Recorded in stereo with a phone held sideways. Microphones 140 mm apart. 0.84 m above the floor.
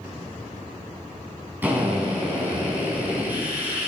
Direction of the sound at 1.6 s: 10° right (ahead or behind).